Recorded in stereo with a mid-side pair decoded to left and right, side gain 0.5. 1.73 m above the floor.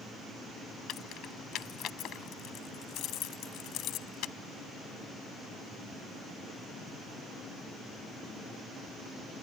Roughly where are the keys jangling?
Ahead left.